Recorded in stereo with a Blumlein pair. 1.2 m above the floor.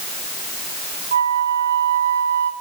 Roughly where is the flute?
Ahead right.